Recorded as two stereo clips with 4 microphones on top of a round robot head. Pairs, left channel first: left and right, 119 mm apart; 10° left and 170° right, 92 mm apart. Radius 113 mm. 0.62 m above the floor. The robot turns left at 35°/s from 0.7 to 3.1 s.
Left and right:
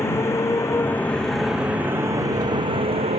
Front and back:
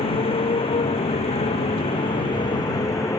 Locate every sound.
0.0 s a motorcycle: 20° left; by 3.2 s 55° right